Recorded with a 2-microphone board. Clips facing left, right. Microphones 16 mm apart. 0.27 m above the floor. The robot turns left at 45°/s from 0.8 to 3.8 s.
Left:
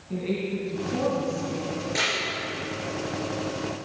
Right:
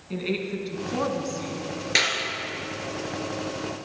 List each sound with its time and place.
0.1 s a woman speaking: 50° right, 3 m; by 1.7 s 90° right, 3 m
1.9 s a clap: 45° right (ahead or behind), 4.5 m; by 2.1 s 55° right (ahead or behind), 4.5 m